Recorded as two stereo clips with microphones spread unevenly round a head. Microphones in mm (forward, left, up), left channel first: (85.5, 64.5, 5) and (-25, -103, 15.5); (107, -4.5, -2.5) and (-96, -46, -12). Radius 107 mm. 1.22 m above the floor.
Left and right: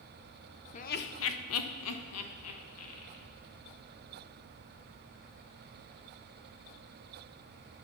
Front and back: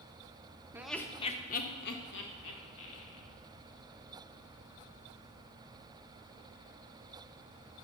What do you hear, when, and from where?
0.7 s laughter: 115° left, 0.6 m; by 3.3 s 45° left, 2 m